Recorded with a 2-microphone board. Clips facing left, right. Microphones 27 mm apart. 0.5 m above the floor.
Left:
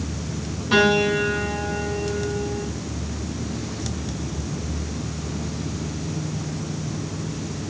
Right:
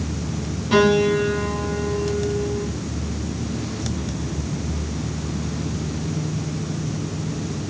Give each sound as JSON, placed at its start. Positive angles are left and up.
{"t": 0.7, "sound": "a piano", "side_deg": 0, "distance_m": 8.0}